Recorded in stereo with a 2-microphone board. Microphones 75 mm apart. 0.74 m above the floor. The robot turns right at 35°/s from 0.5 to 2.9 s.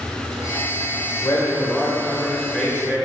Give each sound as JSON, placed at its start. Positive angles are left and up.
{"t": 1.2, "sound": "a man speaking", "azimuth_deg": 130, "distance_m": 2.5}